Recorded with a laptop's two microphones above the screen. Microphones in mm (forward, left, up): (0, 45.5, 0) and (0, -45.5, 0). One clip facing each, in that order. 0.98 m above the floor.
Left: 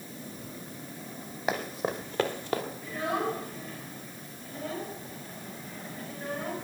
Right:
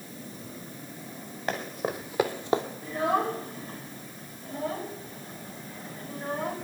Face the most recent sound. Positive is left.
turn(degrees=-25)  # may be behind; listen again after turning